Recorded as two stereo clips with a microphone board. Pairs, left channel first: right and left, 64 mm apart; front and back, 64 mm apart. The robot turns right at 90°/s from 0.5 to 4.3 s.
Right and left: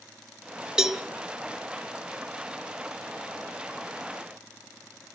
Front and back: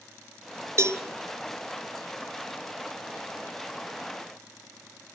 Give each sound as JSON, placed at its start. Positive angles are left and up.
{"t": 0.8, "sound": "a cowbell", "azimuth_deg": 165, "distance_m": 1.4}